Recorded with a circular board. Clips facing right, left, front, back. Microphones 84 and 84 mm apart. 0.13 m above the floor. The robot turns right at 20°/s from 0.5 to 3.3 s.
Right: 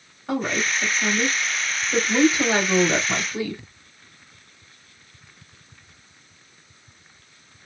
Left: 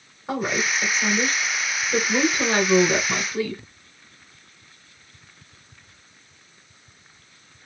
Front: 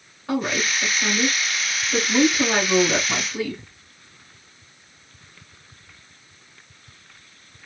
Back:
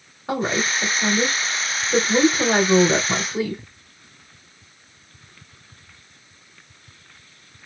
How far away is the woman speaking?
About 1.7 m.